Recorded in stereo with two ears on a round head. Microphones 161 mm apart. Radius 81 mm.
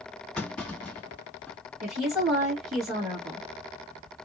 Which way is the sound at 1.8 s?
Centre (ahead or behind).